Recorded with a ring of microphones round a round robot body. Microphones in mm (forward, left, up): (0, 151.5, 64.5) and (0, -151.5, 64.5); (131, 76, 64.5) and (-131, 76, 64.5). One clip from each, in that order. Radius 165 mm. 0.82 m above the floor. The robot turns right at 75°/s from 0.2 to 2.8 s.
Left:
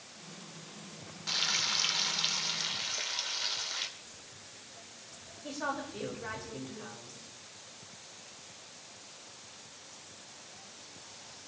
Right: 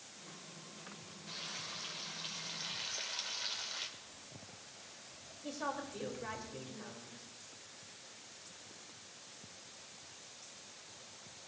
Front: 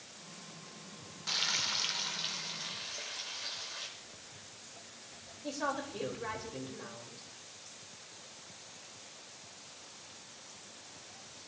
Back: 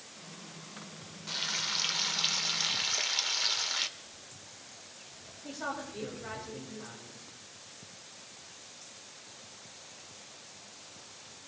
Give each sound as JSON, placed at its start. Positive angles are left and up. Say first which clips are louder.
{"t": 1.3, "sound": "frying", "louder": "left 14 dB, front 1 dB", "azimuth_deg": 55, "distance_m": 1.1}
{"t": 4.0, "sound": "footsteps", "louder": "left 3 dB, back 1 dB", "azimuth_deg": 20, "distance_m": 7.5}
{"t": 5.4, "sound": "a woman speaking", "louder": "left 4 dB, front 2 dB", "azimuth_deg": -5, "distance_m": 4.0}